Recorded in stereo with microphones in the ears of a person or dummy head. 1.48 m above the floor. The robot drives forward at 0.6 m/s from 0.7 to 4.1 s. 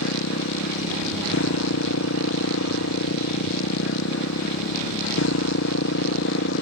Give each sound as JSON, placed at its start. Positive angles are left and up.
{"t": 0.0, "sound": "a motorcycle", "side_deg": 75}